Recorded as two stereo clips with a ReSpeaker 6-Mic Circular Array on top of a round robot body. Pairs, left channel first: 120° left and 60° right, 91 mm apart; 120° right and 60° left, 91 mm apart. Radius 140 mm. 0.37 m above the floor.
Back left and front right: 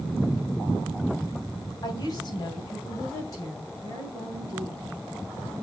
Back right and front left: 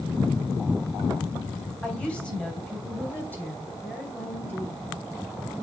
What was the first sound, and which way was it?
A woman speaking, 160° left.